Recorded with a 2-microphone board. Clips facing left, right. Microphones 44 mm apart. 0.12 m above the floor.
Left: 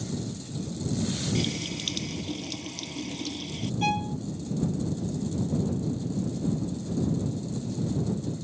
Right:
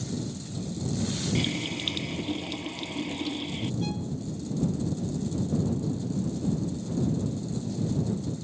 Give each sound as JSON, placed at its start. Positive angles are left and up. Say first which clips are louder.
{"t": 1.4, "sound": "a running tap", "louder": "right 1 dB", "side_deg": -15}
{"t": 3.8, "sound": "a violin", "louder": "left 5 dB", "side_deg": 70}